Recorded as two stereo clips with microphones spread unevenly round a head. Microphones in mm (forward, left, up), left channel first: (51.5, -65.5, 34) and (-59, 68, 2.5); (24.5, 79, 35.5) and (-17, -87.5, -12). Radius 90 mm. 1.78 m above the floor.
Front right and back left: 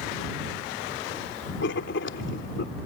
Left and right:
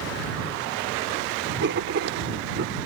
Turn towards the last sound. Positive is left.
turn(degrees=-75)